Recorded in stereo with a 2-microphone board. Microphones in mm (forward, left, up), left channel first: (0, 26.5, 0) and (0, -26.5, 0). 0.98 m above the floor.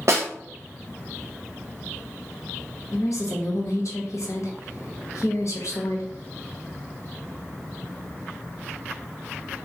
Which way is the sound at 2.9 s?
70° left (ahead or behind).